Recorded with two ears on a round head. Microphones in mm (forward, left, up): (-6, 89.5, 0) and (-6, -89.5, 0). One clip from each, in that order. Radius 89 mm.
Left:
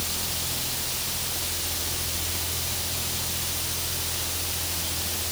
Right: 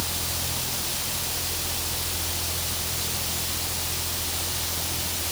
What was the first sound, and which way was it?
Only background noise.